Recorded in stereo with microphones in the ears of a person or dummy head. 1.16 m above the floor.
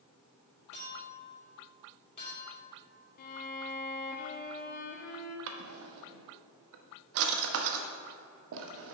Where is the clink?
30° left (ahead or behind), 2.5 m.